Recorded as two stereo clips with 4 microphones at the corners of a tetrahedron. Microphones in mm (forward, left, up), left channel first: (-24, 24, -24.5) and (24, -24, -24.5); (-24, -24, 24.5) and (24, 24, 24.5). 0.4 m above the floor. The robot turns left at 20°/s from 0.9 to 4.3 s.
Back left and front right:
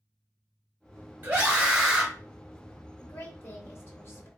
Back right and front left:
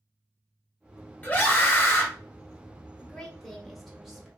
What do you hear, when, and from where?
1.2 s a scream: 85° right, 1.1 m; by 2.1 s 105° right, 1.1 m
3.0 s a woman speaking: 150° left, 1.1 m; by 4.3 s 125° left, 1.1 m